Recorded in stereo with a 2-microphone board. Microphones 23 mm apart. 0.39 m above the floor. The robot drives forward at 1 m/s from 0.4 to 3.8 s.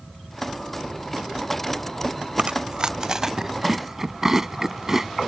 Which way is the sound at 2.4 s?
60° right (ahead or behind).